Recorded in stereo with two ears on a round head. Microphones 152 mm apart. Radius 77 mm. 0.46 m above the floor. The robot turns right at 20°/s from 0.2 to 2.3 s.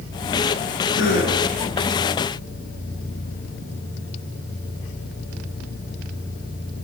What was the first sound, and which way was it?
A gasp, 60° left (ahead or behind).